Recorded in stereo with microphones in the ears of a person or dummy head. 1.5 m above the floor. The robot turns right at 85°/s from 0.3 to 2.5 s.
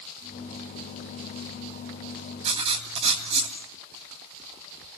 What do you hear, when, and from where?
2.5 s writing: 40° right (ahead or behind), 3 m; by 3.6 s 35° right (ahead or behind), 3 m